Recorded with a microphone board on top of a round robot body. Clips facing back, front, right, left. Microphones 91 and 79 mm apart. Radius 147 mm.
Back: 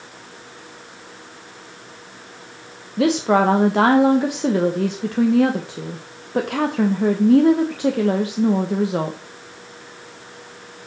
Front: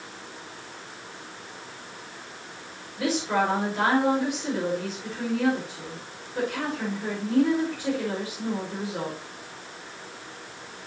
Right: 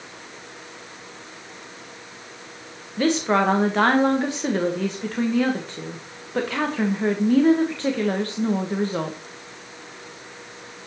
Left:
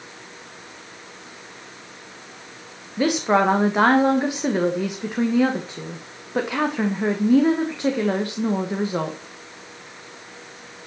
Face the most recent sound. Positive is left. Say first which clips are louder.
# back 8 dB, left 1 dB
turn(degrees=165)